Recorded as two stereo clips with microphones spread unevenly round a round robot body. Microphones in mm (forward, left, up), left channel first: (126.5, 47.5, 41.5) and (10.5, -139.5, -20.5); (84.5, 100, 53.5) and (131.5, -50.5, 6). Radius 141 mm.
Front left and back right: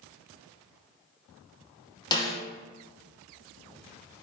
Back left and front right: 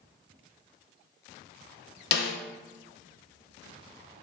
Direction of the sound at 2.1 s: 140° left.